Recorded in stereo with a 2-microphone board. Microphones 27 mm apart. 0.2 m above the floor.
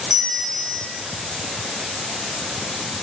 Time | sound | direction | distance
0.1 | a bell | 30° right (ahead or behind) | 2 m